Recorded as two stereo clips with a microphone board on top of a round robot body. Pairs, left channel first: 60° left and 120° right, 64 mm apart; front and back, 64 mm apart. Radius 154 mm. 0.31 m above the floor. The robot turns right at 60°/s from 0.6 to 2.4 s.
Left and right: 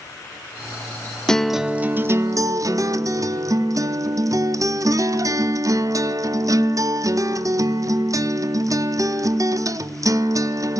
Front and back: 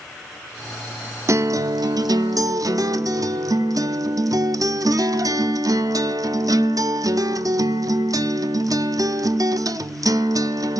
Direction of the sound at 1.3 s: 140° left.